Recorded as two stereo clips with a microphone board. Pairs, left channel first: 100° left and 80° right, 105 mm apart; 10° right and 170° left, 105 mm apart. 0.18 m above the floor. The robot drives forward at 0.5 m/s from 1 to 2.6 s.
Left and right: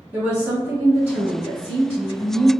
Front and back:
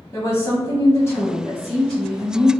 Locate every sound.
0.1 s a woman speaking: 30° right, 1.2 m; by 2.5 s 135° right, 1.2 m